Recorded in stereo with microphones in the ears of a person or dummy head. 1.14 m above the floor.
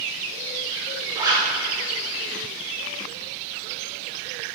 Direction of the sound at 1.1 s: 10° right (ahead or behind).